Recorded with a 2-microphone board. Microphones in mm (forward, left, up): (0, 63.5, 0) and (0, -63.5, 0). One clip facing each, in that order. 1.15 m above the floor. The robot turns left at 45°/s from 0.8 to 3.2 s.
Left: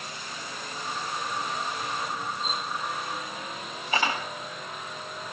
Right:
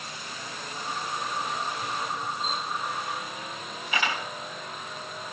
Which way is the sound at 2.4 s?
5° left (ahead or behind).